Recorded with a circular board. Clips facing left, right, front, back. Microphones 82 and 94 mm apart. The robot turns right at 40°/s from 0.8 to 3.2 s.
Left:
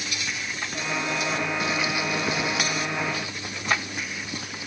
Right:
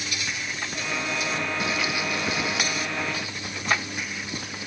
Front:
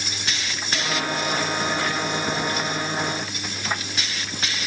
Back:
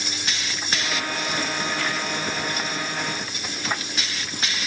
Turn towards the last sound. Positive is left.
No sound to turn to.